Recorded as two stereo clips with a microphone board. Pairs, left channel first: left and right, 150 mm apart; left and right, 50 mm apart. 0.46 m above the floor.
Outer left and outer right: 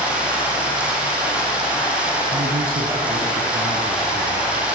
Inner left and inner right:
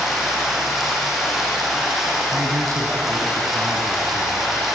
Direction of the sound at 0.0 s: 5° right (ahead or behind).